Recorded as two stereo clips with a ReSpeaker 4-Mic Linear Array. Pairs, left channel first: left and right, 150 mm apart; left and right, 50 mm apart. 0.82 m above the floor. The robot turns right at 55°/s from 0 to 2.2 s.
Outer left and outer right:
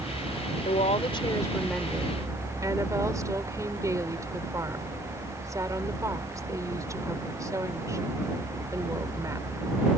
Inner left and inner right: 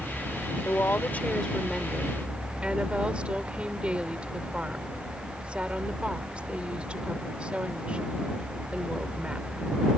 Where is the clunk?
I don't hear a clunk.